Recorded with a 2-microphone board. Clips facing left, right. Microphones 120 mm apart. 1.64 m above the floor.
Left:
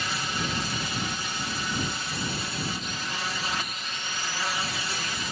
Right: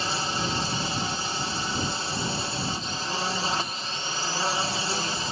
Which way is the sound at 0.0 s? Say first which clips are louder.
Right 3 dB; 30° right (ahead or behind).